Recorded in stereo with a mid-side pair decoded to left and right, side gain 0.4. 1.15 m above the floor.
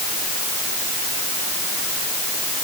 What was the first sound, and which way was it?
Only background noise.